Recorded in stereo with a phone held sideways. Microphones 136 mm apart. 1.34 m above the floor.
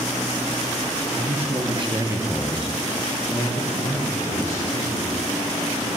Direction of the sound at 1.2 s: 45° right (ahead or behind).